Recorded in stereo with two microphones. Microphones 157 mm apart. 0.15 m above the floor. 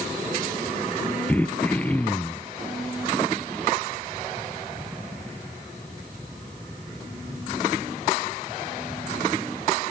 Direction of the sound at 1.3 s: 10° left (ahead or behind).